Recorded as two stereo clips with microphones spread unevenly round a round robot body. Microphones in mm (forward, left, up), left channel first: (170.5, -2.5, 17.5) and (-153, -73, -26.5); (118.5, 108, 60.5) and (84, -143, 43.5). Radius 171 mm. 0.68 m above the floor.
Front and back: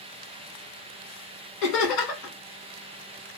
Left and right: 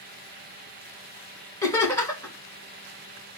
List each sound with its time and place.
1.6 s laughter: 10° left, 1.3 m